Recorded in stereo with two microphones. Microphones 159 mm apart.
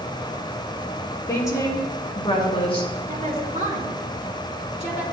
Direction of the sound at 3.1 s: 50° right (ahead or behind).